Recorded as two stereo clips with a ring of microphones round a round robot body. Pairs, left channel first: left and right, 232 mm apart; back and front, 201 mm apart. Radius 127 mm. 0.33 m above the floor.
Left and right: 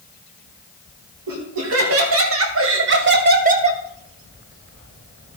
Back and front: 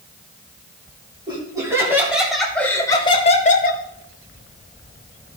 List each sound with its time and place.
1.3 s laughter: 70° right, 3.5 m; by 3.8 s 150° right, 1.8 m